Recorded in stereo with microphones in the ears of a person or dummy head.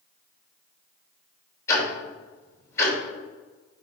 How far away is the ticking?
About 3 m.